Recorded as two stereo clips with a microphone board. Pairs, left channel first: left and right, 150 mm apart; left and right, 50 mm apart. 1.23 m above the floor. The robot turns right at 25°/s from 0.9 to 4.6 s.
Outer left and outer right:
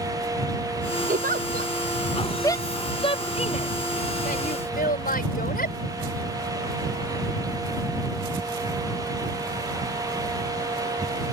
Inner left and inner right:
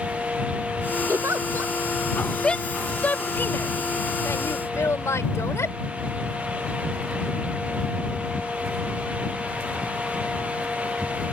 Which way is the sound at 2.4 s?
20° left (ahead or behind).